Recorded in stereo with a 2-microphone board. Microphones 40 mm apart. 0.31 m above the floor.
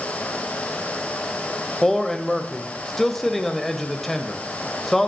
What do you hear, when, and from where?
1.8 s a man speaking: 5° left (ahead or behind), 1.1 m